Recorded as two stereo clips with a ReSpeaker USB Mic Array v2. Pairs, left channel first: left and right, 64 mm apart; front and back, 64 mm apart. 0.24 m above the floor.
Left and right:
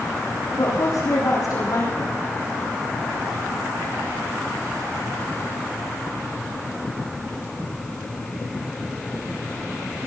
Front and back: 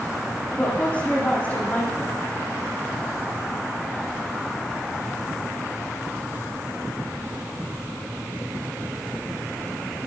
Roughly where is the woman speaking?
Left.